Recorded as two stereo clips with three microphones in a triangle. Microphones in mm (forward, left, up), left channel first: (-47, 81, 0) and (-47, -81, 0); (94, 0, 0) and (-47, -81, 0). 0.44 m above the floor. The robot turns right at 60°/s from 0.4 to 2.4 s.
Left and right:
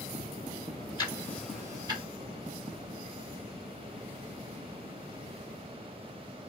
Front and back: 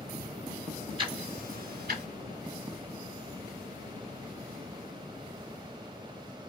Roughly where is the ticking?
Behind left.